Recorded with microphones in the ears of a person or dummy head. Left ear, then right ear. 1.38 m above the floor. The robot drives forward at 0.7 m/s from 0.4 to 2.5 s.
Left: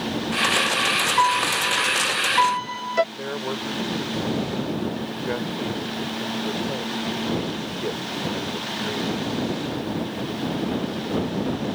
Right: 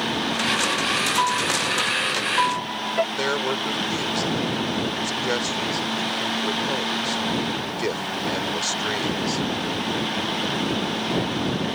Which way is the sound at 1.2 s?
85° left.